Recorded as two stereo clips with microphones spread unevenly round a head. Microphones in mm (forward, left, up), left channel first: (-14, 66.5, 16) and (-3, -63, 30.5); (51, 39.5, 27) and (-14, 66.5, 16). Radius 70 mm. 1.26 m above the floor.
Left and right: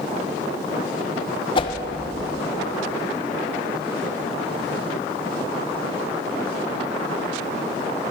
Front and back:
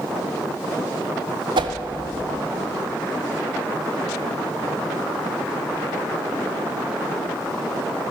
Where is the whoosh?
150° left, 0.7 m.